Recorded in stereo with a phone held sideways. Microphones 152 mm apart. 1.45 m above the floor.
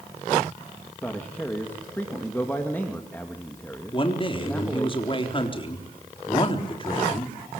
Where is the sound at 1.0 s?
10° left (ahead or behind), 2.5 m.